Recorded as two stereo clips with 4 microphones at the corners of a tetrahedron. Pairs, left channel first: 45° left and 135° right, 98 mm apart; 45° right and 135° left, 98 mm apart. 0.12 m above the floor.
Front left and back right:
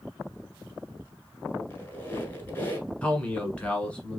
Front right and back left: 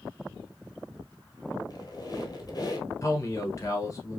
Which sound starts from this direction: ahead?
A squeak, at 1.7 s.